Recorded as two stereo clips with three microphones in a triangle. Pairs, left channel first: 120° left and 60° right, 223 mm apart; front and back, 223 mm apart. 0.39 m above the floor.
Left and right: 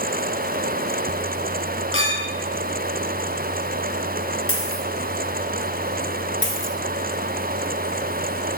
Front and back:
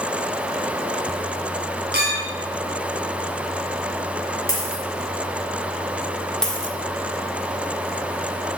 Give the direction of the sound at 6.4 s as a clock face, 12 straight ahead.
9 o'clock.